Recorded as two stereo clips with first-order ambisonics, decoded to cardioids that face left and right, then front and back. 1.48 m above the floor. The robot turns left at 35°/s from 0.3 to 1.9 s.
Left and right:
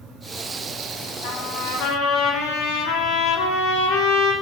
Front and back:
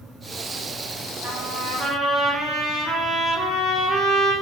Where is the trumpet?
130° left, 3.5 m; by 4.3 s 105° left, 3.5 m.